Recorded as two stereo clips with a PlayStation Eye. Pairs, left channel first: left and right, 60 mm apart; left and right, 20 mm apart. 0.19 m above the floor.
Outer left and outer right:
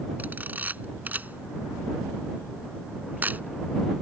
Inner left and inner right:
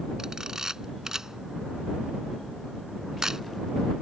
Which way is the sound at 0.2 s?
30° right (ahead or behind).